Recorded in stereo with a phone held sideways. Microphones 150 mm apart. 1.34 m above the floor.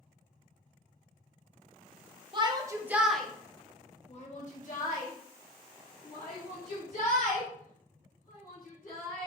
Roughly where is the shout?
Right.